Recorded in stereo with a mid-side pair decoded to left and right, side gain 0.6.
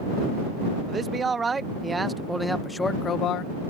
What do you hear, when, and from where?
0.9 s a man speaking: 30° right; by 3.5 s 70° left